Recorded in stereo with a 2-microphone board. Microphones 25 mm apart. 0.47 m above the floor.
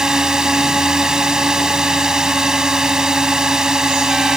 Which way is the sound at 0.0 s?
30° right (ahead or behind).